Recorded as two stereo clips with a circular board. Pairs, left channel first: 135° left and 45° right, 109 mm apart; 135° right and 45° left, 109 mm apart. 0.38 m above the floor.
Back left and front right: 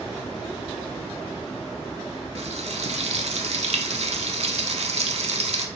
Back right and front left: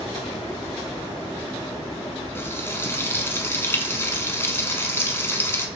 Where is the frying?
65° right, 0.7 m.